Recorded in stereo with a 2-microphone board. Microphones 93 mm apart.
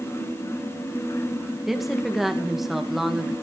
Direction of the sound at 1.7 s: Centre (ahead or behind).